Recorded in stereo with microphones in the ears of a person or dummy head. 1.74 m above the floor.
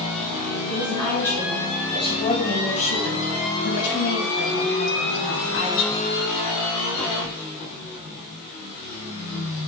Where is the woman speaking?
10° left (ahead or behind), 2.5 m; by 6.0 s 55° left (ahead or behind), 3 m.